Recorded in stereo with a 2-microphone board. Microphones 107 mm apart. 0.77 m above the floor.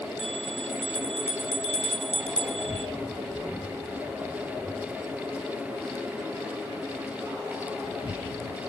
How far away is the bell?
About 1.8 m.